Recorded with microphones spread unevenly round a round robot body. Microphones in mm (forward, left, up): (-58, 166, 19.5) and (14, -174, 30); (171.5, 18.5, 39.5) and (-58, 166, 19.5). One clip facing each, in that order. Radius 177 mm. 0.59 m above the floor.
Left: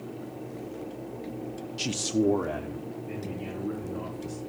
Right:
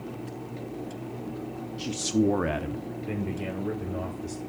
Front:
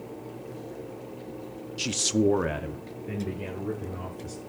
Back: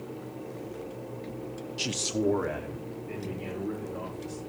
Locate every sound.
1.8 s a man speaking: 65° left, 0.7 m; by 4.4 s 80° right, 3 m